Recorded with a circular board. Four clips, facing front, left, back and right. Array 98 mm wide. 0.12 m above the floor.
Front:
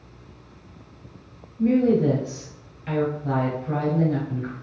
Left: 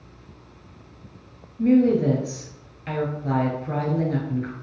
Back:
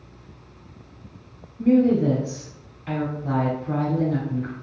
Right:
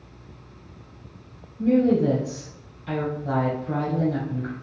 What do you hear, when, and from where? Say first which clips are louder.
1.6 s a woman speaking: left 1 dB, back 1 dB; 85° left, 1.6 m